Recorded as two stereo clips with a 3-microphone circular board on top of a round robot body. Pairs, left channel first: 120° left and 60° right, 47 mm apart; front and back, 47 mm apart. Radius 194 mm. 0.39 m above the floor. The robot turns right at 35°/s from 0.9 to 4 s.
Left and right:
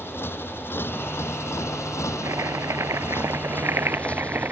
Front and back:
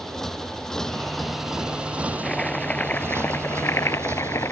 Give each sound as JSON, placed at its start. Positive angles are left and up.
{"t": 0.0, "sound": "a motorcycle", "azimuth_deg": 80}
{"t": 2.2, "sound": "chopping", "azimuth_deg": -80}